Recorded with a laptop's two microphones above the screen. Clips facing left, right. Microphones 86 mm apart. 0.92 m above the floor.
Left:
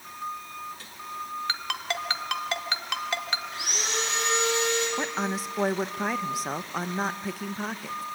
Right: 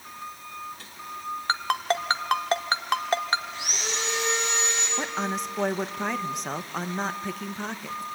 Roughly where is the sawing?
Left.